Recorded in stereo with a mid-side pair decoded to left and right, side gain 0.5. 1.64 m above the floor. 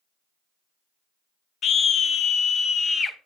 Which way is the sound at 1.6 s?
55° left.